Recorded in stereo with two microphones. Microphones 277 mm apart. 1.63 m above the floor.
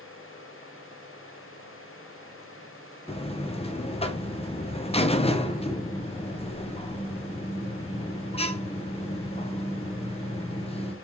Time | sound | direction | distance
3.1 | a buzzer | 20° left (ahead or behind) | 0.6 m